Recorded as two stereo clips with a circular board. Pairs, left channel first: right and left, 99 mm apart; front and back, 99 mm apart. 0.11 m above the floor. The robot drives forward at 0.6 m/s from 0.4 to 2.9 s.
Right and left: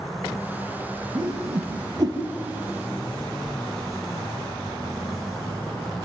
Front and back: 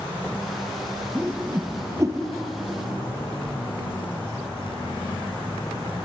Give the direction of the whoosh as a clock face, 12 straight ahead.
8 o'clock.